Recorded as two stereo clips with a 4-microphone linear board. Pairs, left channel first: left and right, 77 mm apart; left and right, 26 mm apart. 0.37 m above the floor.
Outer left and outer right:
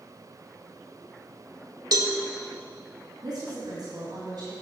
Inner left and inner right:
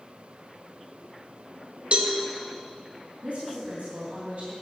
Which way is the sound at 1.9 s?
60° right (ahead or behind).